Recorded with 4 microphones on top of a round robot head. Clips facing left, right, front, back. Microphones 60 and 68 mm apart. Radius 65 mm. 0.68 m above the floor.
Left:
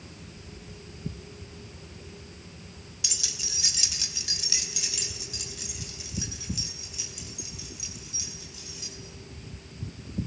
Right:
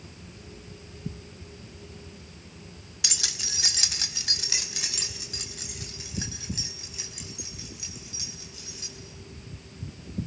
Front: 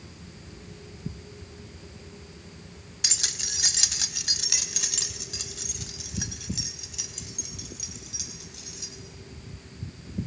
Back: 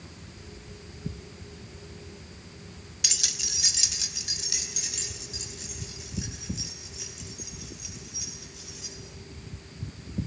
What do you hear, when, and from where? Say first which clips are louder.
3.0 s keys jangling: right 5 dB, front 2 dB; 60° right, 0.7 m; by 8.9 s 30° right, 5.5 m